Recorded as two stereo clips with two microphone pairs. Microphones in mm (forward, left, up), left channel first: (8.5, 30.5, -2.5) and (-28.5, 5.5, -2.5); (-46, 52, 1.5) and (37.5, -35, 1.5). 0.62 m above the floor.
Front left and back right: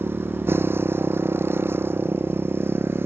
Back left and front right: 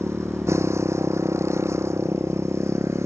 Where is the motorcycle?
115° right.